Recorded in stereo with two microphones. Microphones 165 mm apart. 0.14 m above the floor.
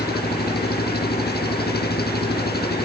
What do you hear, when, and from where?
0.0 s an engine running: 75° left (ahead or behind)